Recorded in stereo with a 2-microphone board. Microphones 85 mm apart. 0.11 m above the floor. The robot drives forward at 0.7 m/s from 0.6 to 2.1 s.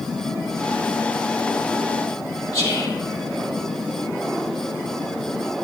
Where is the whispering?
35° left (ahead or behind), 4 m.